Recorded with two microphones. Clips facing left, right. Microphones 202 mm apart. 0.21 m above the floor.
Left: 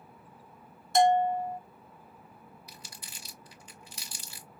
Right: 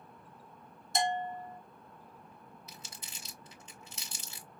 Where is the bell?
65° left (ahead or behind), 1.0 m.